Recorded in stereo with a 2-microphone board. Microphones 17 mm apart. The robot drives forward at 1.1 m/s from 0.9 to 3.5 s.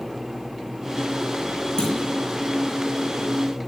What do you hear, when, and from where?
1.8 s a clunk: 35° left (ahead or behind), 8.5 m; by 1.9 s 40° left (ahead or behind), 8.5 m